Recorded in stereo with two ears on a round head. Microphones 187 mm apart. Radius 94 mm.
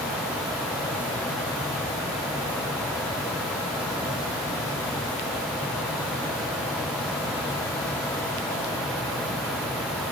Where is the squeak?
I don't hear a squeak.